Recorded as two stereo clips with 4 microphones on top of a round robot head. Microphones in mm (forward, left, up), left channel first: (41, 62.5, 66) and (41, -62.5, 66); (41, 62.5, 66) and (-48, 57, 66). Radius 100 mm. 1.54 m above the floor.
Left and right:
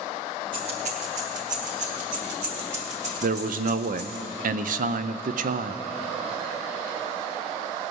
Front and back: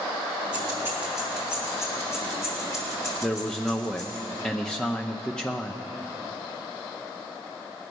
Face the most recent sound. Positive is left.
turn(degrees=-80)